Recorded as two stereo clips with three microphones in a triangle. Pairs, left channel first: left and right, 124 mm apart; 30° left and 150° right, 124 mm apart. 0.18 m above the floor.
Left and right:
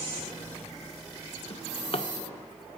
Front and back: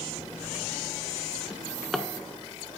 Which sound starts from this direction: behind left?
A drawer, at 1.5 s.